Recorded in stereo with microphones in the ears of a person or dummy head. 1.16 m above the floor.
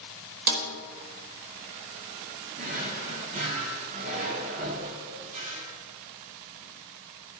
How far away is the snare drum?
About 1.4 m.